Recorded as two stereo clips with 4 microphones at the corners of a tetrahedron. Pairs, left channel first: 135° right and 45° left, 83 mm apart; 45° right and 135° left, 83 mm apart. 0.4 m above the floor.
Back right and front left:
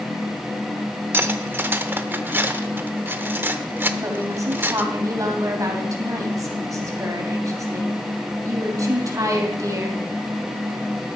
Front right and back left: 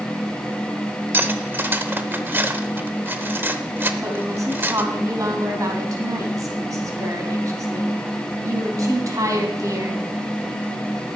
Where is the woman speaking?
90° left, 2.5 m.